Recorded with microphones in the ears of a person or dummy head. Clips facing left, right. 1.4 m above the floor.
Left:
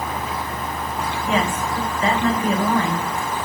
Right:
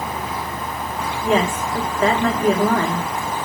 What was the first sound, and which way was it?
A woman speaking, 35° right (ahead or behind).